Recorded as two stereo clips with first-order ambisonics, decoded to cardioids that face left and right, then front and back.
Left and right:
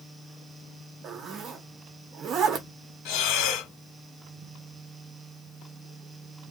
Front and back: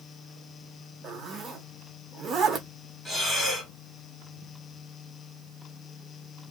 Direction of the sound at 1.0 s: 130° right.